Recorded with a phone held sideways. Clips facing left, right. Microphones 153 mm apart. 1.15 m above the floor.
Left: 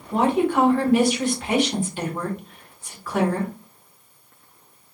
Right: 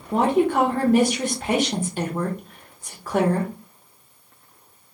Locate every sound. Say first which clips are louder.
0.1 s a woman speaking: right 1 dB; 45° right (ahead or behind), 1.0 m